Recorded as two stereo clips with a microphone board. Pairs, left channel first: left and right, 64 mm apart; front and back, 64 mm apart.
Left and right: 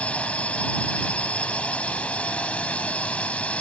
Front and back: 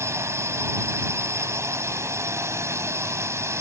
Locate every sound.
0.0 s a drone: 155° left